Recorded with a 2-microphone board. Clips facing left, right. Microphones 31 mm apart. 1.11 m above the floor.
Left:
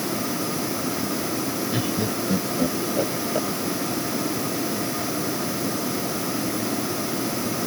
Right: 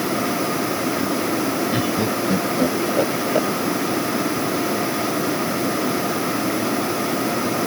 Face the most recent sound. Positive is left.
turn(degrees=-25)  # may be behind; listen again after turning